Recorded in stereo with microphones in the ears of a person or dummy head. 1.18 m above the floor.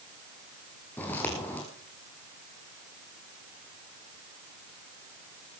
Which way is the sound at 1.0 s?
10° left (ahead or behind).